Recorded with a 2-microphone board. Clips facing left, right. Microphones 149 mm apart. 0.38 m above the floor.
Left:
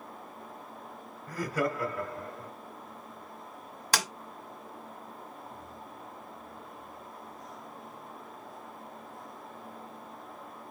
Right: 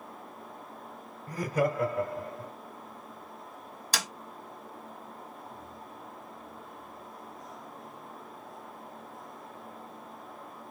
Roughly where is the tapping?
Left.